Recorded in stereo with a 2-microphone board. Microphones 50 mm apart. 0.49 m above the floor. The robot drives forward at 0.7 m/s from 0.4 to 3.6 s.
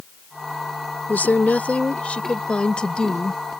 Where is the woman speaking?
40° left (ahead or behind); by 3.4 s 20° left (ahead or behind).